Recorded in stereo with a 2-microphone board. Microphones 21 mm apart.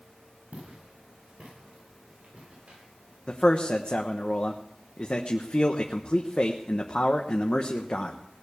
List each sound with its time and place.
0.5 s footsteps: 80° right, 9 m
3.3 s a man speaking: 60° left (ahead or behind), 1.0 m